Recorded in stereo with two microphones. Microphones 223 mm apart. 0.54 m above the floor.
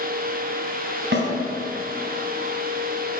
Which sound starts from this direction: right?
A snare drum, at 1.1 s.